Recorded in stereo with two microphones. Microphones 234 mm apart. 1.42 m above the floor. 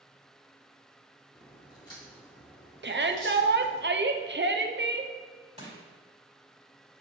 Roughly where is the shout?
Right.